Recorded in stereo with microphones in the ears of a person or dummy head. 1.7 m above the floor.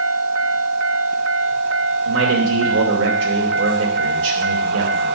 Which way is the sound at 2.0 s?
80° right.